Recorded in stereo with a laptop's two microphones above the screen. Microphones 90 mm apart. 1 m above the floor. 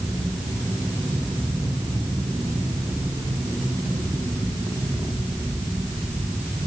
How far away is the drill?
No drill in this recording.